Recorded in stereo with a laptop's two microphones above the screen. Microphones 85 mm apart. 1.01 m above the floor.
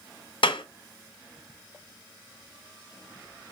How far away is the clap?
About 1.0 m.